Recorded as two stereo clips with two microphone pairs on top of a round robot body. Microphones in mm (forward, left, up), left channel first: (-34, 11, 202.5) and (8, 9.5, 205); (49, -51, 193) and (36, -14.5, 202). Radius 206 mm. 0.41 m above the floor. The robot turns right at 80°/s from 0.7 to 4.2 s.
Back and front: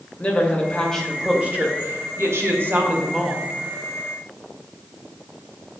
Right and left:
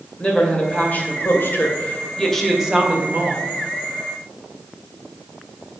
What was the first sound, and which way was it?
A woman speaking, 125° right.